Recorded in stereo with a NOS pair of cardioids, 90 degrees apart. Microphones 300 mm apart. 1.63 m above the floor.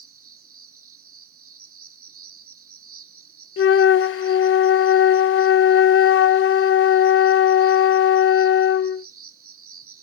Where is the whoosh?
No whoosh in this recording.